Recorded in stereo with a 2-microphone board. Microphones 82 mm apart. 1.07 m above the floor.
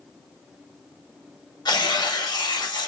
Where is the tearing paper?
60° left (ahead or behind), 0.7 m.